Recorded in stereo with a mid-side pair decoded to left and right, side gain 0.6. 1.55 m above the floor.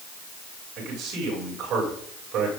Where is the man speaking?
60° right, 7.5 m.